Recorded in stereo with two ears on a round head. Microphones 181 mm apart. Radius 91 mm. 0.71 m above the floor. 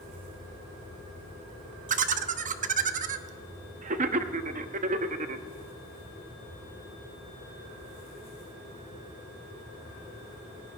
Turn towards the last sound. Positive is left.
turn(degrees=-40)  # may be behind; listen again after turning